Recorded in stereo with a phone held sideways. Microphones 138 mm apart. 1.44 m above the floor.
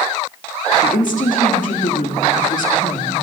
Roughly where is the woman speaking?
Left.